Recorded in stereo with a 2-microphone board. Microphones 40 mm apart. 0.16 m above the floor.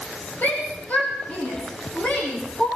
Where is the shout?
45° left (ahead or behind), 5.5 m; by 2.7 s 35° left (ahead or behind), 9 m.